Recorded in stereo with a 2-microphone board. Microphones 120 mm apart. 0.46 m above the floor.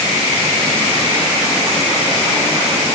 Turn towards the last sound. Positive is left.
No sound to turn to.